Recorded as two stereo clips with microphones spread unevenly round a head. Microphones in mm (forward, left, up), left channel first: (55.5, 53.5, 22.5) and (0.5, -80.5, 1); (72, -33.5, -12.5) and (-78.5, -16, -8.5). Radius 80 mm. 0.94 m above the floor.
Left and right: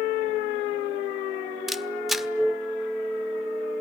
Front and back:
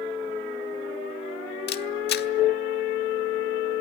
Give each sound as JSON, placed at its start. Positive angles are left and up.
{"t": 1.7, "sound": "a camera shutter", "azimuth_deg": -20, "distance_m": 1.3}